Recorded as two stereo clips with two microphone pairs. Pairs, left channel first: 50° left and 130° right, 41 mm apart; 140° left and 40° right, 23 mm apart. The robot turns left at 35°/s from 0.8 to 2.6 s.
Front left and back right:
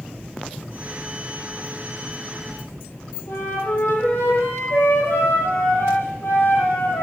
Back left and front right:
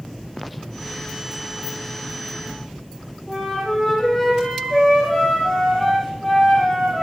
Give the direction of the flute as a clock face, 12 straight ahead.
10 o'clock.